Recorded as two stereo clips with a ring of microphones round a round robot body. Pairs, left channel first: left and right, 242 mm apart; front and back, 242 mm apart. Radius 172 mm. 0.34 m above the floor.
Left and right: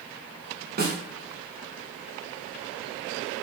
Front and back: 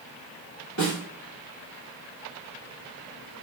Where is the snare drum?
35° right, 1.0 m.